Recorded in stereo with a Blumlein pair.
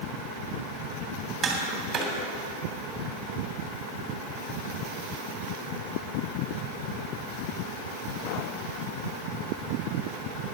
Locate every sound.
1.4 s tapping: 20° right, 3 m